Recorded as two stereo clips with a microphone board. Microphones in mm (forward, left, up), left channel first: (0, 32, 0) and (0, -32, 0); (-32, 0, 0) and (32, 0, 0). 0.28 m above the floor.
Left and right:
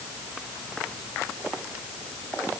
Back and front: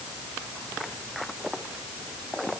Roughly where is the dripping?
I don't hear dripping.